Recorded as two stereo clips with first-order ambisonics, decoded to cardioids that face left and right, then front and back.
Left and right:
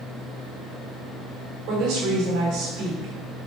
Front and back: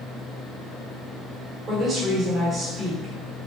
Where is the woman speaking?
115° right, 4 m.